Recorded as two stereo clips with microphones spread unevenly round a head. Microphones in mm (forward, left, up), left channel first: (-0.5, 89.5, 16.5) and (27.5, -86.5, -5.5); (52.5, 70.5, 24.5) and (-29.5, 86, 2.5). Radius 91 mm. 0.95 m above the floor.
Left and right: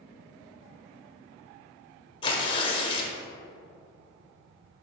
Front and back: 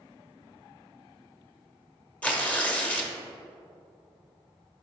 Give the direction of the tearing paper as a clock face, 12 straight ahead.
10 o'clock.